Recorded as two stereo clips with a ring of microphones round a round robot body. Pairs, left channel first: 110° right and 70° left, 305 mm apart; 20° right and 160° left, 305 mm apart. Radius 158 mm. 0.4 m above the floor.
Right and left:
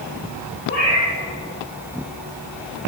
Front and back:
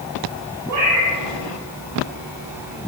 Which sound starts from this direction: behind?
A cat meowing, at 0.7 s.